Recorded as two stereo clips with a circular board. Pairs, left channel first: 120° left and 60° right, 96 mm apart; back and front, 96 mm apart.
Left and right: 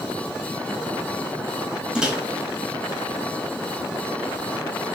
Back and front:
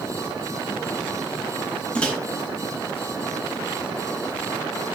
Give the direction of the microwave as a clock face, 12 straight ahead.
4 o'clock.